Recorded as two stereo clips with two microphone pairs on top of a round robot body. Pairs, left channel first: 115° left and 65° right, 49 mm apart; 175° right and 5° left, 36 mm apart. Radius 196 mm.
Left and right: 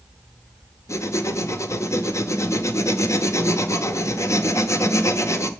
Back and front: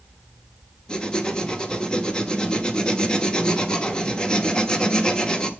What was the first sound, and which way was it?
Writing, 120° left.